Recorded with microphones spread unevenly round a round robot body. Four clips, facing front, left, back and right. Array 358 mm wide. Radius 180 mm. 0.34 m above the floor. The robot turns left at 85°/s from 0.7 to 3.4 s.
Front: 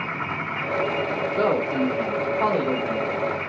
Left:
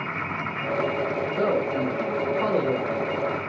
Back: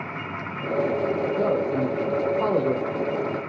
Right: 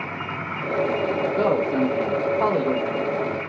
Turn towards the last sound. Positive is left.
turn(degrees=140)